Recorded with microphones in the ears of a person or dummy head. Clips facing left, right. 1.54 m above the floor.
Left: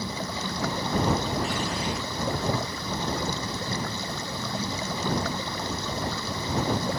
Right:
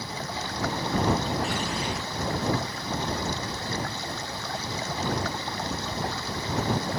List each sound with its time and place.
0.0 s running water: 90° left